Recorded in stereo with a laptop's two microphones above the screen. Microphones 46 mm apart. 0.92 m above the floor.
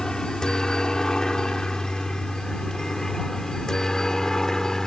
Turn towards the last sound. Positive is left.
turn(degrees=10)  # may be behind; listen again after turning